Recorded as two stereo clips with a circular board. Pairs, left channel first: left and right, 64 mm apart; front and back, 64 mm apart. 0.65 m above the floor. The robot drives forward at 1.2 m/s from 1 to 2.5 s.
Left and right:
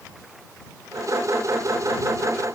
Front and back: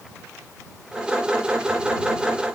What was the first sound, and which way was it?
Only background noise.